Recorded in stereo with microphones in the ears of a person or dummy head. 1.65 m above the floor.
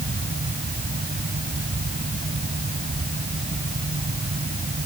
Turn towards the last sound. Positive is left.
turn(degrees=-40)  # may be behind; listen again after turning